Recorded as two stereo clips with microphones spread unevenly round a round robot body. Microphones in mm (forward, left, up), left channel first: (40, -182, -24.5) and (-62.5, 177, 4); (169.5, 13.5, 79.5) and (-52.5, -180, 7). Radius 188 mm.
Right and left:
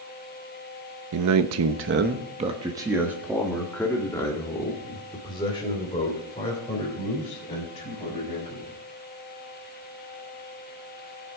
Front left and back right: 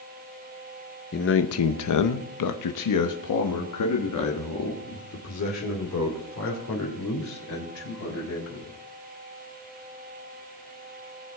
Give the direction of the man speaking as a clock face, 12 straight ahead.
9 o'clock.